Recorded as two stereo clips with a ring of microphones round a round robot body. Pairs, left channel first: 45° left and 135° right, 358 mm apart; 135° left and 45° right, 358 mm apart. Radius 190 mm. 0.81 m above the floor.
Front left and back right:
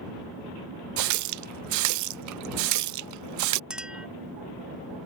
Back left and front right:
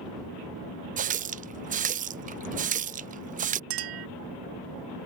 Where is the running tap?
110° right.